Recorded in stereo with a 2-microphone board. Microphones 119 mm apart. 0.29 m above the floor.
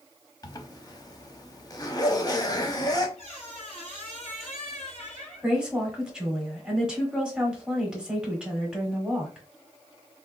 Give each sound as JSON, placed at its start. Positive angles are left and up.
{"t": 0.4, "sound": "a zipper", "side_deg": 30, "distance_m": 0.6}
{"t": 3.2, "sound": "a squeak", "side_deg": 65, "distance_m": 2.0}
{"t": 5.4, "sound": "a woman speaking", "side_deg": -10, "distance_m": 1.1}